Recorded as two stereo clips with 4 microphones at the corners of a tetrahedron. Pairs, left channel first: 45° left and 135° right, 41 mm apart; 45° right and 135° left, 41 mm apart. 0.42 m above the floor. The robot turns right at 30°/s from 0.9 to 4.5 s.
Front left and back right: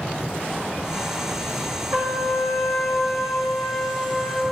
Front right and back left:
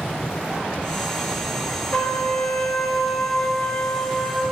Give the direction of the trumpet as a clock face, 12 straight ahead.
3 o'clock.